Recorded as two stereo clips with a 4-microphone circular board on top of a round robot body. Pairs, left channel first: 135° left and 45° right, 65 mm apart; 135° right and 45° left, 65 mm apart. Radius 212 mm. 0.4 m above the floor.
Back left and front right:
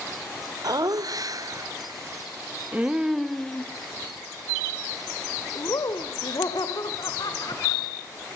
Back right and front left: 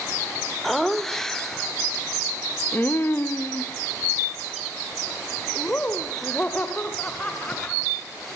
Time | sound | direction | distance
0.6 | laughter | 50° right | 1.9 m